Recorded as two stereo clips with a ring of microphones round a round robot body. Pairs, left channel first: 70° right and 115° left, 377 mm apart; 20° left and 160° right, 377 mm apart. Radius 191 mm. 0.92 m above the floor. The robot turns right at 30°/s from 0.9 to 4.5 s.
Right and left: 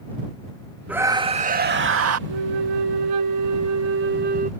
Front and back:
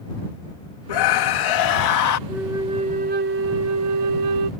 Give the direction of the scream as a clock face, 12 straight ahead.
11 o'clock.